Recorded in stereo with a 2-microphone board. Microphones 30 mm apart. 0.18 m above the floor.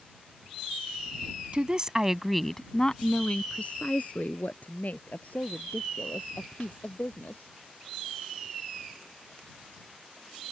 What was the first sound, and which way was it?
A woman speaking, 35° right (ahead or behind).